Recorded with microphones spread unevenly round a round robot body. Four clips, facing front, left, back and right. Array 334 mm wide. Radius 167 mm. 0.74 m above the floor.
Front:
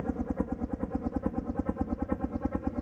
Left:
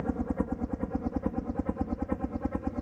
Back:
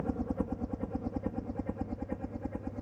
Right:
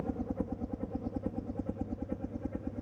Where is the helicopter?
75° left; by 2.8 s 40° left.